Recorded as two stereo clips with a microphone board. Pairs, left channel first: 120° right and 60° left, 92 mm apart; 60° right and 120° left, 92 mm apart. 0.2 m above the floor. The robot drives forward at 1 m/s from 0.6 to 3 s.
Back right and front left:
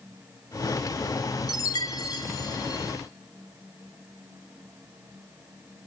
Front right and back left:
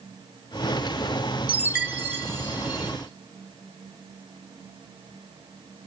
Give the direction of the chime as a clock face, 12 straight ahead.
5 o'clock.